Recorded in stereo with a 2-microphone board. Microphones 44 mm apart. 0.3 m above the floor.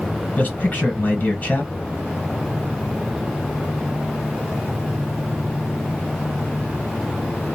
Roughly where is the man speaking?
Left.